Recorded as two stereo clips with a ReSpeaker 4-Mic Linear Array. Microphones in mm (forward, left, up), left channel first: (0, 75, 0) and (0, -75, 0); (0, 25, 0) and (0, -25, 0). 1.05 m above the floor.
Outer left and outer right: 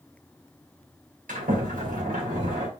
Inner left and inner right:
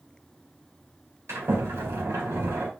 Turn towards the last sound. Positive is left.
turn(degrees=-75)  # may be behind; listen again after turning